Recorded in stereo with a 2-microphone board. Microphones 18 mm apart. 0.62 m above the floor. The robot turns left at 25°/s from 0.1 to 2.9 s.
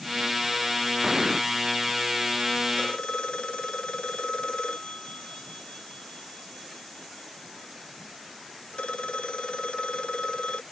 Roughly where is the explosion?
Right.